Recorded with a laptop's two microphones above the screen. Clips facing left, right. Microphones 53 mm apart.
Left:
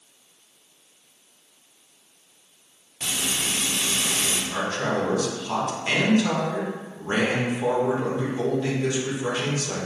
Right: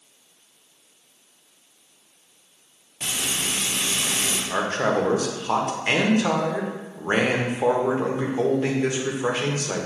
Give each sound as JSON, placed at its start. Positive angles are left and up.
{"t": 3.0, "sound": "frying", "side_deg": -20, "distance_m": 0.8}
{"t": 4.5, "sound": "a man speaking", "side_deg": -35, "distance_m": 0.6}